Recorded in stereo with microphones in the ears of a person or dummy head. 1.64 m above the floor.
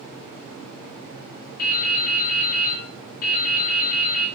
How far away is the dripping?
About 2 m.